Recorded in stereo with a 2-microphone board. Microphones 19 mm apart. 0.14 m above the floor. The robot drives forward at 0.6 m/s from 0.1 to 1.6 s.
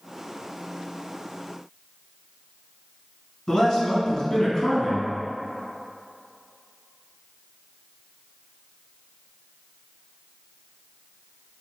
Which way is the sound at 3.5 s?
30° left (ahead or behind).